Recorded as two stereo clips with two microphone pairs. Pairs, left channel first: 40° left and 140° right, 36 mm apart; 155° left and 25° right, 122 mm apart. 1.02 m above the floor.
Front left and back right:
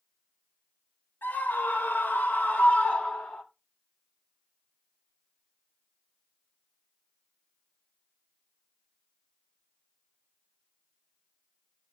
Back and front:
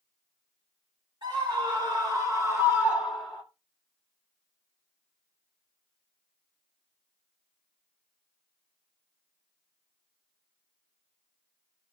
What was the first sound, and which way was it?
A scream, 20° left.